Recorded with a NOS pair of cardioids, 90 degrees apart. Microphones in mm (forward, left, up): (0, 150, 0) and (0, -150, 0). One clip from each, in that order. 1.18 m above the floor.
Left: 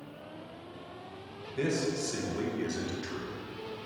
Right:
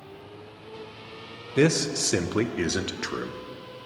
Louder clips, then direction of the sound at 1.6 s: Right 8 dB; 65° right.